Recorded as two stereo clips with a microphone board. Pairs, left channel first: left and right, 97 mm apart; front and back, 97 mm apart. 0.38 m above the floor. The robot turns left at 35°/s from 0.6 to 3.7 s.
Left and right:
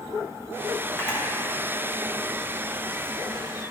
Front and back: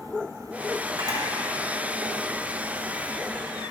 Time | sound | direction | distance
1.0 | a camera shutter | 150° left | 2 m